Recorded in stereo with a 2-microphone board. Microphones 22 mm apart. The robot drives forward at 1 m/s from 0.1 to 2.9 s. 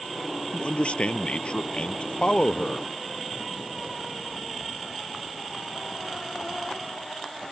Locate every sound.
0.5 s a man speaking: 70° left (ahead or behind); by 2.9 s 45° left (ahead or behind)